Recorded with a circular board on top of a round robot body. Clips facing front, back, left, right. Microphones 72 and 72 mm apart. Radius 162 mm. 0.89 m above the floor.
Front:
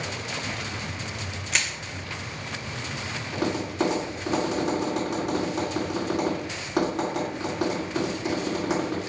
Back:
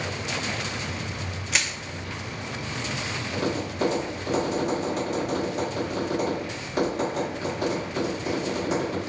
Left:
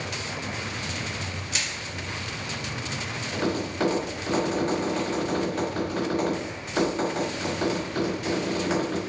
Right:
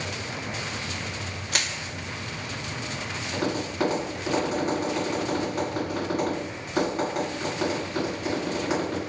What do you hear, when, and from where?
1.5 s crushing: 95° right, 0.9 m
3.3 s tapping: 15° right, 2.5 m